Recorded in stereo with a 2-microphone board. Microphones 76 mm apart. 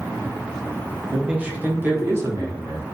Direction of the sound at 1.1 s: 10° right (ahead or behind).